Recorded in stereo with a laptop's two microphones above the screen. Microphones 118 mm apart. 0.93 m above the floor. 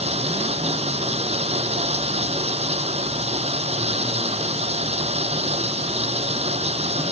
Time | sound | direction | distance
0.0 | running water | 60° right (ahead or behind) | ?